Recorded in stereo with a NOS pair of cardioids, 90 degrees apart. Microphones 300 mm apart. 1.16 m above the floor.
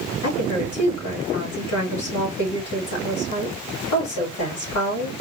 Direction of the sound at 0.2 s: 65° left.